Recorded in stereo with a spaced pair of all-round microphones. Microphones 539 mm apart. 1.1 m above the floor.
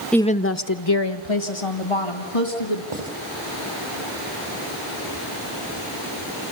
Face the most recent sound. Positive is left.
turn(degrees=-80)